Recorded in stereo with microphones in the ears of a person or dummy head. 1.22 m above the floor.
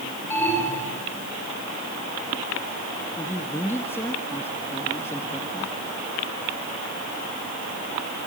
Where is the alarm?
10° left (ahead or behind), 9.5 m.